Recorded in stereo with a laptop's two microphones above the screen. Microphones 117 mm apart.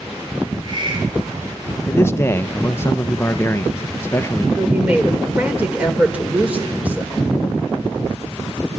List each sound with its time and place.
0.4 s a hiss: 45° right (ahead or behind), 4 m
1.9 s a man speaking: 20° left (ahead or behind), 0.8 m
4.6 s a woman speaking: 10° right (ahead or behind), 4.5 m